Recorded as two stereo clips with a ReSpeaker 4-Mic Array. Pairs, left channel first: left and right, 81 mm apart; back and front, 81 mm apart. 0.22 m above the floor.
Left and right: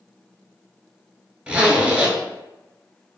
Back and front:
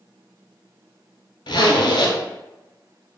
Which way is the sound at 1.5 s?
165° right.